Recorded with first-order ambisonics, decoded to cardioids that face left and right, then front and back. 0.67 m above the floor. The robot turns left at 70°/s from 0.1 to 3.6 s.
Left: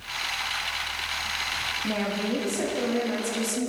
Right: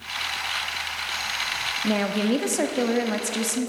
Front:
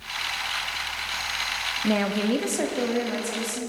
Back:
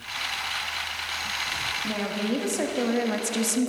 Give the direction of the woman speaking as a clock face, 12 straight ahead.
1 o'clock.